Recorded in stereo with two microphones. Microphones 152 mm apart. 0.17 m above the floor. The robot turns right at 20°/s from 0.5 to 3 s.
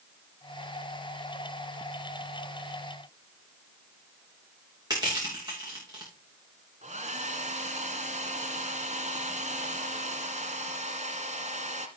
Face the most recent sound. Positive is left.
turn(degrees=-50)  # may be behind; listen again after turning